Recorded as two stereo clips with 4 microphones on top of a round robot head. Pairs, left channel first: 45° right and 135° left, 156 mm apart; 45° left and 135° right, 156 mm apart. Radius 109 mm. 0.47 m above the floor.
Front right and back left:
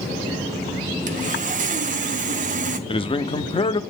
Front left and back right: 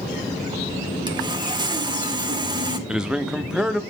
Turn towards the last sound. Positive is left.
turn(degrees=-55)